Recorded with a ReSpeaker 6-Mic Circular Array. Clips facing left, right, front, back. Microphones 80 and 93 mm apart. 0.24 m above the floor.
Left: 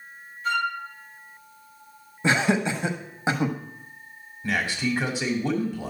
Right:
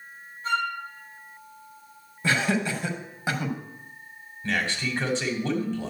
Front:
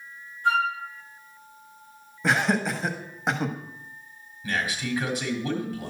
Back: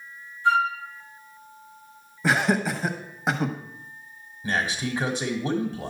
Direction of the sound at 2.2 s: 95° left.